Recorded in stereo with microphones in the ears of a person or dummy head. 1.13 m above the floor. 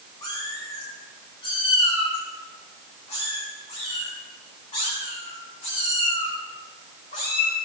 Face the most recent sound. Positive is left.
turn(degrees=40)  # may be behind; listen again after turning